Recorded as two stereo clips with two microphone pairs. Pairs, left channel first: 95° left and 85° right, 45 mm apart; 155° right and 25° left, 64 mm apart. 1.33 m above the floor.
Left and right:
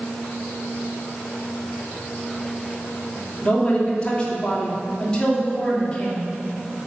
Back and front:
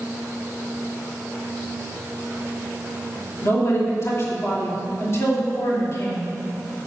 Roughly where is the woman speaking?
Behind.